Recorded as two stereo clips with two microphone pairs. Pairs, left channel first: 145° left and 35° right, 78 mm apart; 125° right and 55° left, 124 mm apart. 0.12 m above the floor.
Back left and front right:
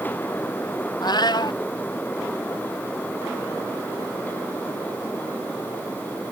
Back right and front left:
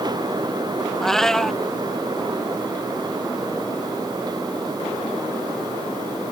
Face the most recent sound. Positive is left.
turn(degrees=150)